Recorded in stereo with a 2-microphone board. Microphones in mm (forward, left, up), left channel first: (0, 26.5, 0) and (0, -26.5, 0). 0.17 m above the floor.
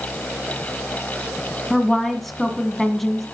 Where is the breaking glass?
No breaking glass in this recording.